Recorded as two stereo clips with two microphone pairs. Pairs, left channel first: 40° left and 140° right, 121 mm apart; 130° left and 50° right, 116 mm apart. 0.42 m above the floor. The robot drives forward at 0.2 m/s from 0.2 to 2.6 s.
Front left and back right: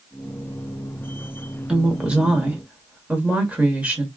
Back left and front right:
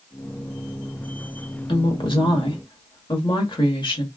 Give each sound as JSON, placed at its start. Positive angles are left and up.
{"t": 1.7, "sound": "a woman speaking", "azimuth_deg": 140, "distance_m": 1.0}